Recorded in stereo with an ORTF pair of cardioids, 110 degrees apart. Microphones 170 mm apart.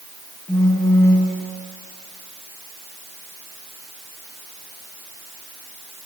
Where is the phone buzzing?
20° left, 1.4 m.